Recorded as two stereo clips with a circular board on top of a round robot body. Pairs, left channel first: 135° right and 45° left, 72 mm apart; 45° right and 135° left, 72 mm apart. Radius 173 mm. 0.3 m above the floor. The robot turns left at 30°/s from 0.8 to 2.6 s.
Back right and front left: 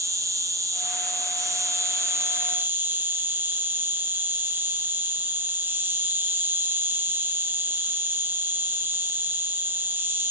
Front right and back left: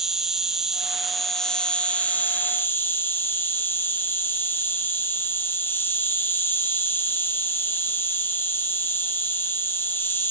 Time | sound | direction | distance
0.0 | an insect | 55° left | 1.9 m